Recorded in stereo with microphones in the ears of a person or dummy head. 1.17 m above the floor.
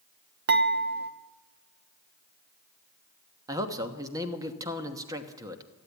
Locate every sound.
0.5 s dishes clattering: 55° right (ahead or behind), 1.0 m
3.5 s a man speaking: 20° right (ahead or behind), 1.1 m